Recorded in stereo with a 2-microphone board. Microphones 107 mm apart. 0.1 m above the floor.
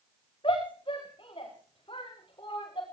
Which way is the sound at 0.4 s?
55° left (ahead or behind).